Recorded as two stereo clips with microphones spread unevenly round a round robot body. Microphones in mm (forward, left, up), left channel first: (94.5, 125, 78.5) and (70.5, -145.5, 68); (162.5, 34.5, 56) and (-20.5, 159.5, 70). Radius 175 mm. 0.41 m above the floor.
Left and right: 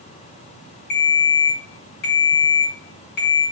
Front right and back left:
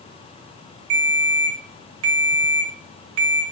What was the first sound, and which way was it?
A ringtone, 145° left.